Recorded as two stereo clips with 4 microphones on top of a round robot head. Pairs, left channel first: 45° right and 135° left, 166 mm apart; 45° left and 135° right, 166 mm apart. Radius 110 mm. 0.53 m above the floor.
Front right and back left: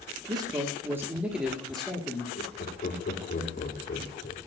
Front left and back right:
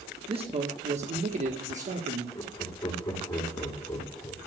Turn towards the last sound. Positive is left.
turn(degrees=-20)